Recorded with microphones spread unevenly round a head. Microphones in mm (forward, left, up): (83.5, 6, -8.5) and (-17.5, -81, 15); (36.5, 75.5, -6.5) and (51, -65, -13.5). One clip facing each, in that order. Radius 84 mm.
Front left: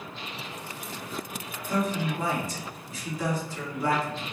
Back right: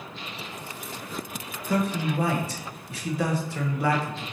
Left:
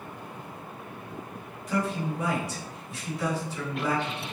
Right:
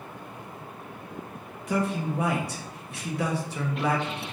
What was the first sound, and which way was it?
A man speaking, 125° right.